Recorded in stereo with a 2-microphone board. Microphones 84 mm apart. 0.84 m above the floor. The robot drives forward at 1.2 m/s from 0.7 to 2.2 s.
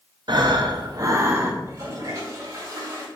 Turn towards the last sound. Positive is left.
turn(degrees=-40)  # may be behind; listen again after turning